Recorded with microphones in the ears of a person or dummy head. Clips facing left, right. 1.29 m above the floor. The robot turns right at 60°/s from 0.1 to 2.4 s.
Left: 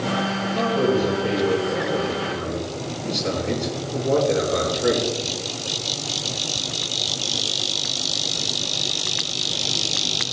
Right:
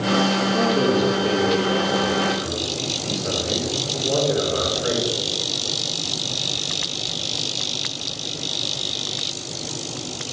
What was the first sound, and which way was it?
A man speaking, 65° right.